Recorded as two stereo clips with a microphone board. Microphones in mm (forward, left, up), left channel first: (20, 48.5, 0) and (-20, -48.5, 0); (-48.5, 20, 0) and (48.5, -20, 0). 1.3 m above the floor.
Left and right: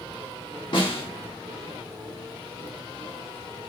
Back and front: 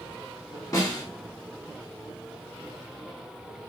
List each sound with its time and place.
0.7 s a snare drum: 105° left, 1.2 m